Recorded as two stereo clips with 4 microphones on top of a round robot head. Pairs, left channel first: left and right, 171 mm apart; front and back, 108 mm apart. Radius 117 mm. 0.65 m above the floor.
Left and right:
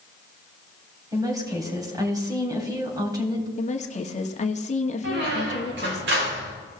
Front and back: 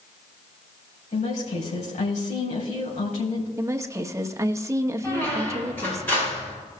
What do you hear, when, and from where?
1.1 s a woman speaking: 20° right, 3.5 m
3.6 s a woman speaking: 125° left, 1.4 m
5.0 s a squeak: 75° right, 4.5 m